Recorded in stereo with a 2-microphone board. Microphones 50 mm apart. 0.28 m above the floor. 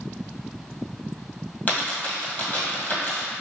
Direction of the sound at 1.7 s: 35° left (ahead or behind).